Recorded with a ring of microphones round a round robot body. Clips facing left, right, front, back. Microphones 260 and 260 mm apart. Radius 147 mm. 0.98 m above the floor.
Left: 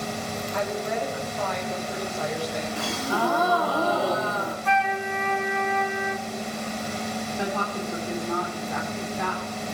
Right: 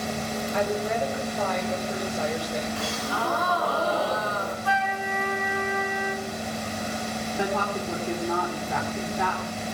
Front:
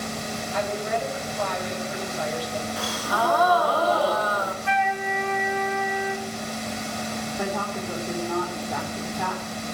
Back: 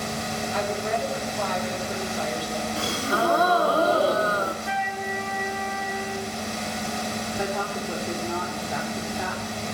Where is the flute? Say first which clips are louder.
Left 2 dB, front 3 dB; 20° left, 2.5 m.